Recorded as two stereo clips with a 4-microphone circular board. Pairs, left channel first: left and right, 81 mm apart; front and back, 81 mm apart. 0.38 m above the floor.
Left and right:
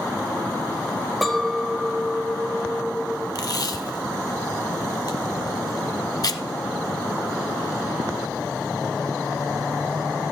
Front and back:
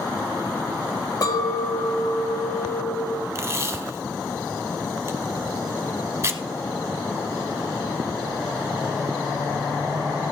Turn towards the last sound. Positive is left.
turn(degrees=125)